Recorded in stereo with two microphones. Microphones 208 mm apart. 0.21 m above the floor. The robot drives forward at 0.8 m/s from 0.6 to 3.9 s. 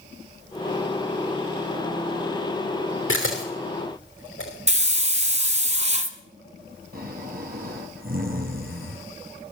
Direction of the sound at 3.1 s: 90° left.